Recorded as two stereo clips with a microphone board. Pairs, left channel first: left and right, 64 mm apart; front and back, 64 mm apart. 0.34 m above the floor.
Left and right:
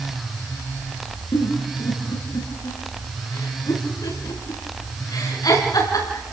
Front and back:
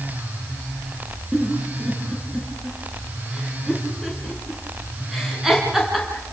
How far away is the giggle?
About 5 m.